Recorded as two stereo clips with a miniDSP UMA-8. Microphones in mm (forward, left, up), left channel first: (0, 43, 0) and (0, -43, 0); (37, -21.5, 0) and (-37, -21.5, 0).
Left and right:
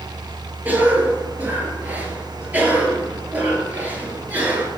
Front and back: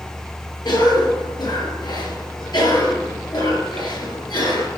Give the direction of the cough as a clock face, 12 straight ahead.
1 o'clock.